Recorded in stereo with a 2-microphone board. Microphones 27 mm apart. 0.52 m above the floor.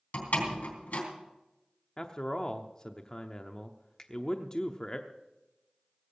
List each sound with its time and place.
0.1 s a door slam: 75° left (ahead or behind), 3.5 m
2.0 s a man speaking: 25° left (ahead or behind), 0.7 m
4.0 s a finger snap: 25° left (ahead or behind), 1.1 m